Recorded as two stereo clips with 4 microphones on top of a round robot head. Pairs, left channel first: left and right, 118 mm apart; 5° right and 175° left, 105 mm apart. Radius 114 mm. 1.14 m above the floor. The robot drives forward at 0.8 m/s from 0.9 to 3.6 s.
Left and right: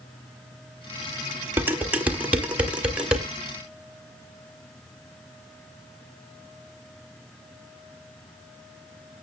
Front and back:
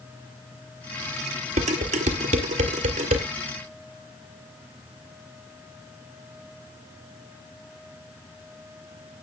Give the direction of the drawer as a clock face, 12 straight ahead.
No drawer in this recording.